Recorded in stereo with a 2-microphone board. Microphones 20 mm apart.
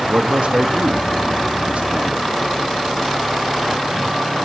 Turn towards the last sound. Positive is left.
turn(degrees=-80)